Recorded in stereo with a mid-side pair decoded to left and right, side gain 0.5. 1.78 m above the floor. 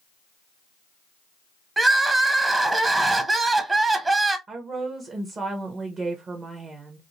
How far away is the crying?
About 0.7 m.